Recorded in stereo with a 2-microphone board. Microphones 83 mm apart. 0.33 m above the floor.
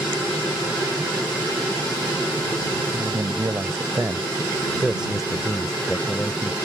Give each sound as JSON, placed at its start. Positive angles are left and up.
{"t": 2.9, "sound": "a man speaking", "side_deg": -40}